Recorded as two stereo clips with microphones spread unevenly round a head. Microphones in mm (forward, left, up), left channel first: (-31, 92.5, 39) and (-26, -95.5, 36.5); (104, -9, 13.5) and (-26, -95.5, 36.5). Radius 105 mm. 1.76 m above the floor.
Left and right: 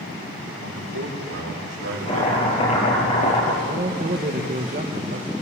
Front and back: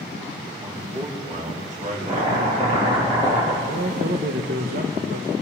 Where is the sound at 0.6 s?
95° right, 5 m; by 2.8 s 120° right, 6 m.